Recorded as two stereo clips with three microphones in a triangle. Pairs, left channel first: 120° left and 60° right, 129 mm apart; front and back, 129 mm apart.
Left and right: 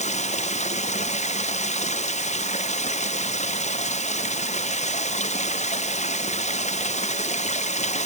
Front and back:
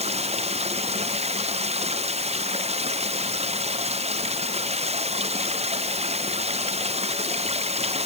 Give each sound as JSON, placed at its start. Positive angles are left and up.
{"t": 0.0, "sound": "running water", "azimuth_deg": 145}